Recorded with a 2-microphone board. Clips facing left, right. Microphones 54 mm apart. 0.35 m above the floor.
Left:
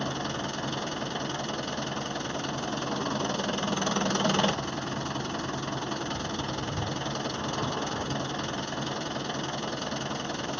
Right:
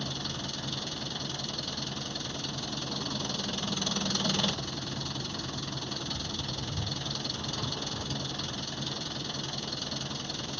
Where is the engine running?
35° left (ahead or behind).